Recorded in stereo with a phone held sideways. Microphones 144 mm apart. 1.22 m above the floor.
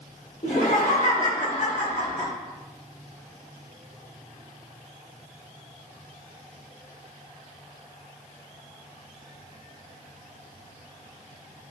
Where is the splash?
I don't hear a splash.